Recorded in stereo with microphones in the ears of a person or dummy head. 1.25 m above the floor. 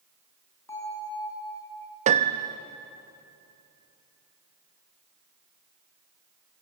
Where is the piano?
45° right (ahead or behind), 0.8 m.